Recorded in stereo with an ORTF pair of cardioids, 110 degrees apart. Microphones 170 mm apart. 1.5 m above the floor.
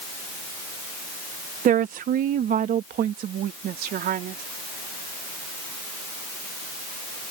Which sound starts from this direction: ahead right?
A woman speaking, at 1.6 s.